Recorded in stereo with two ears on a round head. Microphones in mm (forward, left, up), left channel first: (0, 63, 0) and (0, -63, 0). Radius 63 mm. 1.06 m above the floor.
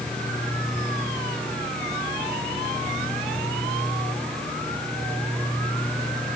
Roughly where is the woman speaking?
I don't hear a woman speaking.